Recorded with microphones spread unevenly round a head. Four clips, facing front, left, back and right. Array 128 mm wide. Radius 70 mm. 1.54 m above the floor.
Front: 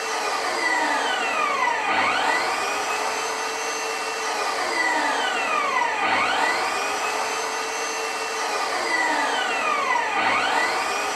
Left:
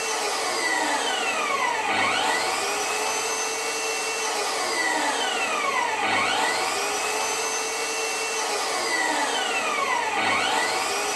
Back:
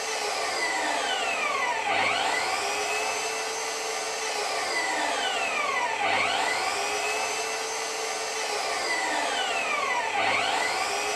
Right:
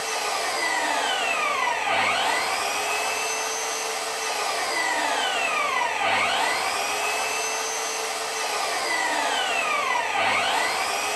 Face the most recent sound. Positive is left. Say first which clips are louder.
# even, front 5 dB
turn(degrees=15)